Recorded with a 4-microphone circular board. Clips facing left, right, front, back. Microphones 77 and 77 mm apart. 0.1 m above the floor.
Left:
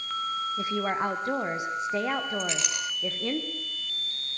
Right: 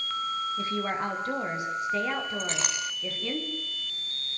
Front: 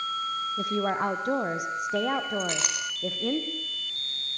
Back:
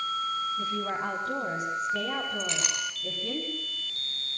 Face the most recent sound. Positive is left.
turn(degrees=-40)